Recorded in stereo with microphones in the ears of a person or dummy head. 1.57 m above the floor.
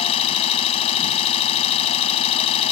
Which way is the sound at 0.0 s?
35° left (ahead or behind).